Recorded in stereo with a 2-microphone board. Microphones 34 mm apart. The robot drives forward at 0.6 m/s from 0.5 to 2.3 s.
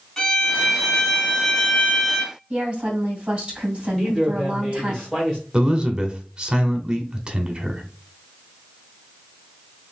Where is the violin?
15° left (ahead or behind), 2.5 m; by 2.4 s 25° left (ahead or behind), 1.6 m.